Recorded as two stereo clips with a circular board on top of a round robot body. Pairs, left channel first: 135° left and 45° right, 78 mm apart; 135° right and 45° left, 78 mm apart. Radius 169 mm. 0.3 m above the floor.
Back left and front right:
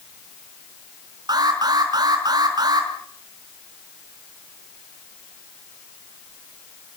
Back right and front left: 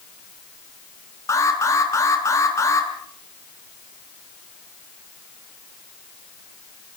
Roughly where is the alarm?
Right.